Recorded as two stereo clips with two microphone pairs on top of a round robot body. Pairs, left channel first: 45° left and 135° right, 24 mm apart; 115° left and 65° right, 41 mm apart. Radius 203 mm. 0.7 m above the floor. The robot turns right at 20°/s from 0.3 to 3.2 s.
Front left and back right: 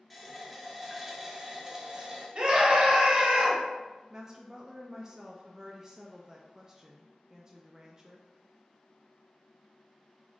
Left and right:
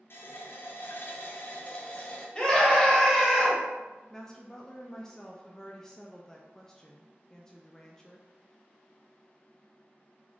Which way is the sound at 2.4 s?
165° left.